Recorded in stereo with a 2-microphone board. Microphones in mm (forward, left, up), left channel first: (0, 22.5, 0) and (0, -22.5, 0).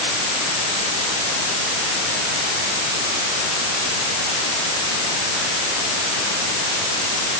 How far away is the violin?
No violin in this recording.